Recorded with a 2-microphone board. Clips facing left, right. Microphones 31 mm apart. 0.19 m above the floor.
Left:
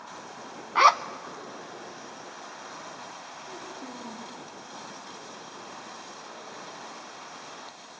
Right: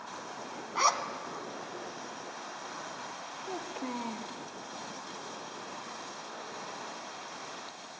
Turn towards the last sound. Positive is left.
turn(degrees=-75)  # may be behind; listen again after turning